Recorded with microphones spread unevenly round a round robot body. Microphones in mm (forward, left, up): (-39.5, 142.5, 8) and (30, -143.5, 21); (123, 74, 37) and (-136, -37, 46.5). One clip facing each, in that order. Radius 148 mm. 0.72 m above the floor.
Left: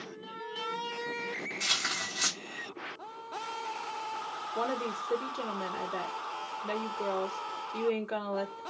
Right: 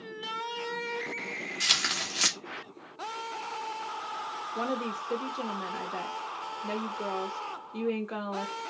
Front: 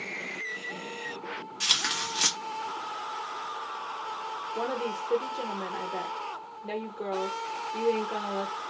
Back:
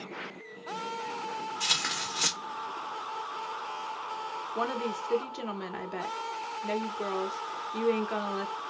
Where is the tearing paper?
40° right, 1.5 m.